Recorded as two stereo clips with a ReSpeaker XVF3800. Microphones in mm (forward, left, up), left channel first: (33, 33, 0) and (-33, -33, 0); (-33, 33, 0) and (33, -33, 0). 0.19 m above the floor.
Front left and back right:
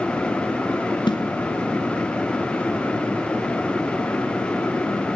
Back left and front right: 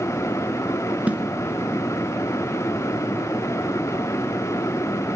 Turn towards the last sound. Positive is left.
turn(degrees=30)